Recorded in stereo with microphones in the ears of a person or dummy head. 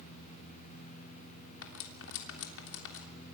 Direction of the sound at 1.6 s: 70° left (ahead or behind).